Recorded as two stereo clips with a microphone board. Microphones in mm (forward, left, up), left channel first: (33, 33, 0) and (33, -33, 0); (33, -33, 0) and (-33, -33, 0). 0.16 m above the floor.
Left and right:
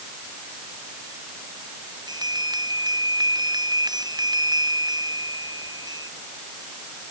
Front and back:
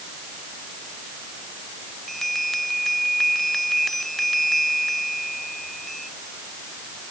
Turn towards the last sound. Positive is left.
turn(degrees=-85)